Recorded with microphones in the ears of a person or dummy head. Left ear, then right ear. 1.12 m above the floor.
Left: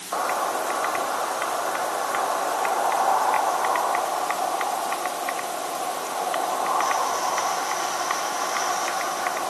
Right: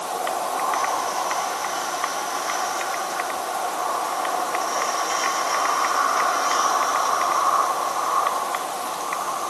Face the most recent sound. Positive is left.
No sound to turn to.